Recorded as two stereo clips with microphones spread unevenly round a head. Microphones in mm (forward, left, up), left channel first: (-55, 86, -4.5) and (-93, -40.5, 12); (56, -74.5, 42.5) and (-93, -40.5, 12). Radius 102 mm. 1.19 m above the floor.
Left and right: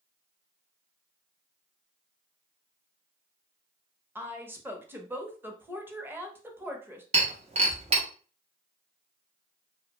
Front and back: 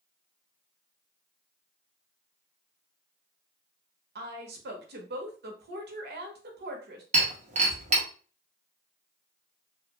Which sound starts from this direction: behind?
A woman speaking, at 4.2 s.